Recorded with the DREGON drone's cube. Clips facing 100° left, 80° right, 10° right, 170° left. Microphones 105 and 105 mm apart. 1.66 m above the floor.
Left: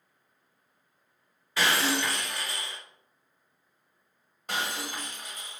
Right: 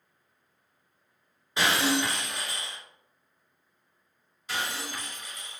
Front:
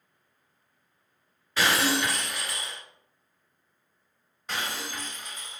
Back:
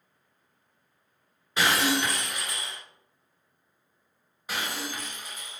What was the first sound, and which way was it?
Breaking glass, 130° right.